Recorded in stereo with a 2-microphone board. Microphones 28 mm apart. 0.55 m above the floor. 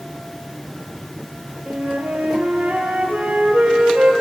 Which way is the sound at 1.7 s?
60° right (ahead or behind).